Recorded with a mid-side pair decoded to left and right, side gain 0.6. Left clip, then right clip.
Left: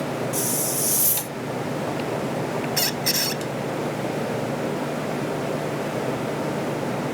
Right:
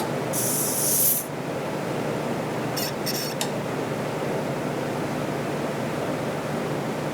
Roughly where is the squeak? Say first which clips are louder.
Left 4 dB; ahead left.